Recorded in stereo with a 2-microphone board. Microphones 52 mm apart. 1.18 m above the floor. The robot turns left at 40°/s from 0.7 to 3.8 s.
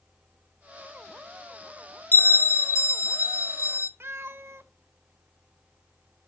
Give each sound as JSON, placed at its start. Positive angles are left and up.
{"t": 2.1, "sound": "a bell", "azimuth_deg": 135, "distance_m": 0.7}
{"t": 4.0, "sound": "a cat meowing", "side_deg": -50, "distance_m": 0.8}